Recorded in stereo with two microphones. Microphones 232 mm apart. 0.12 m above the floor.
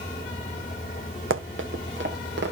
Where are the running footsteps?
60° right (ahead or behind), 1.4 m; by 2.5 s 50° right (ahead or behind), 3 m.